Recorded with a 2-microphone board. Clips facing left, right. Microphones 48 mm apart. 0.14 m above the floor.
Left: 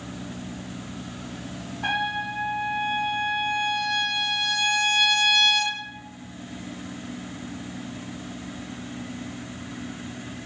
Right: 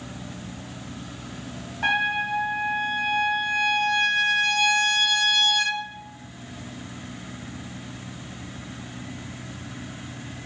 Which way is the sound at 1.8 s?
65° right (ahead or behind).